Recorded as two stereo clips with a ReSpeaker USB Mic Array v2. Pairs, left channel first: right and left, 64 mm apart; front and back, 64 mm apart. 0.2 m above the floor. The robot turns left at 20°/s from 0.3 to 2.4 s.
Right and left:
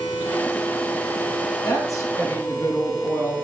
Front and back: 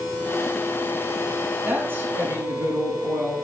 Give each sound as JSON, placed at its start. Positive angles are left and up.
{"t": 1.6, "sound": "a woman speaking", "azimuth_deg": -115, "distance_m": 6.5}